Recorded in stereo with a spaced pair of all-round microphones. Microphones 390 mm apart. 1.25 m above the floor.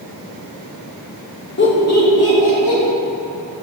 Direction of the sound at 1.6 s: 30° left (ahead or behind).